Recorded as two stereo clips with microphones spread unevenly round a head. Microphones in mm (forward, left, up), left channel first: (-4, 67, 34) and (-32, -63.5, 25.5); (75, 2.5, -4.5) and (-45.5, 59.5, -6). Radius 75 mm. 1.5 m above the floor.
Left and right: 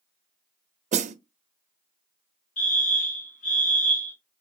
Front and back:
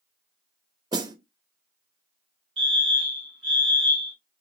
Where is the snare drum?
140° right, 0.5 m.